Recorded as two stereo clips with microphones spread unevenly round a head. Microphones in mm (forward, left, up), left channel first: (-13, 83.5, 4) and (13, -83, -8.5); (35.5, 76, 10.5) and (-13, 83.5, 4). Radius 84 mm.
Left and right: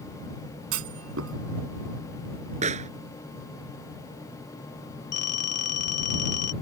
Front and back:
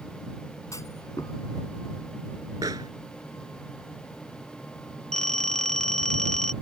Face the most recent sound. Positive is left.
turn(degrees=70)